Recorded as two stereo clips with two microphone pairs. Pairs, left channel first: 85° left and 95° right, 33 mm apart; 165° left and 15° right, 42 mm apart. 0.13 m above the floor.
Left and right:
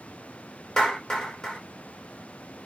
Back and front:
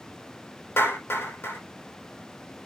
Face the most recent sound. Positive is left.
turn(degrees=160)